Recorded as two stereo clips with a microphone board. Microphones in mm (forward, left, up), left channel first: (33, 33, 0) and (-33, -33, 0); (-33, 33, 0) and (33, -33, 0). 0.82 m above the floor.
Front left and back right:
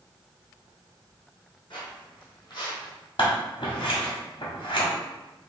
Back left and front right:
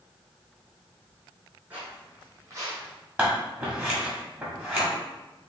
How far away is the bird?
I don't hear a bird.